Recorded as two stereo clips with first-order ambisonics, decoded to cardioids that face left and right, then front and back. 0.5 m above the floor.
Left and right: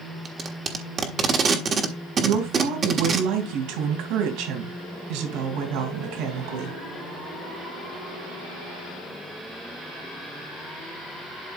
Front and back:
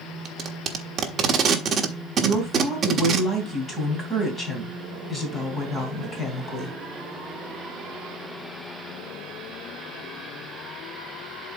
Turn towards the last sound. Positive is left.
turn(degrees=-70)